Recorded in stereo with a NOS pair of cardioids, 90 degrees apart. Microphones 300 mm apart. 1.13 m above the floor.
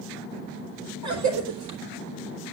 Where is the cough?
65° right, 3.5 m.